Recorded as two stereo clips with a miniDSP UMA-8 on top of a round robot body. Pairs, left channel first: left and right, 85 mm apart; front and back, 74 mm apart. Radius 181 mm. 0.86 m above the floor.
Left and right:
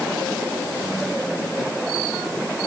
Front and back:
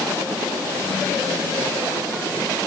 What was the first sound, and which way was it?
Only background noise.